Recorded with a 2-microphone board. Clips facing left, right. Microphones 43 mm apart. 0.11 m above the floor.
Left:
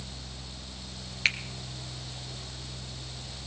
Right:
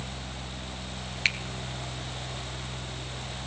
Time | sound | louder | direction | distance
1.2 | a finger snap | even | centre (ahead or behind) | 1.7 m